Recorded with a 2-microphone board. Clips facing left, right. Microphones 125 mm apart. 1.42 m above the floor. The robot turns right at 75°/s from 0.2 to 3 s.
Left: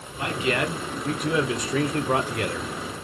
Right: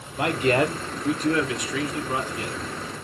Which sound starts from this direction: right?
A man speaking, at 0.2 s.